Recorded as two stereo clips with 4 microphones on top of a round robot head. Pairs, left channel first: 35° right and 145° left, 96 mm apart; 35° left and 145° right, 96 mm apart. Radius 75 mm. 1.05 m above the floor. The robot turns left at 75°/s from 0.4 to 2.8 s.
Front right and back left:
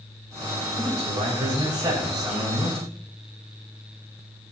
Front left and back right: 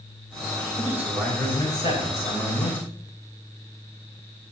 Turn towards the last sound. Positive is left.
turn(degrees=10)